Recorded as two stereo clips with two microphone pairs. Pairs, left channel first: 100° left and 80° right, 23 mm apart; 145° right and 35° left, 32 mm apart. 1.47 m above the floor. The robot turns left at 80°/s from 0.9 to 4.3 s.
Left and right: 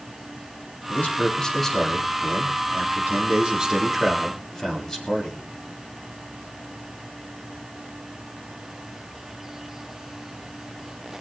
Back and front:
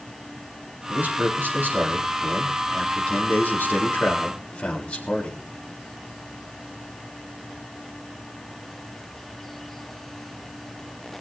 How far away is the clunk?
No clunk in this recording.